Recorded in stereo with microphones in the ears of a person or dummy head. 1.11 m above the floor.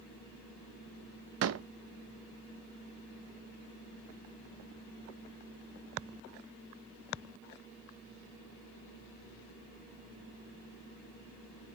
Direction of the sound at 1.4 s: 75° right (ahead or behind).